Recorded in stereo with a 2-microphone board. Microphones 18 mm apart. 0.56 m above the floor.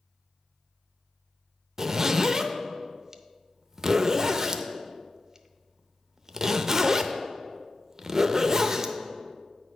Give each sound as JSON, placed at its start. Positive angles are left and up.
{"t": 1.8, "sound": "a zipper", "side_deg": -20, "distance_m": 0.5}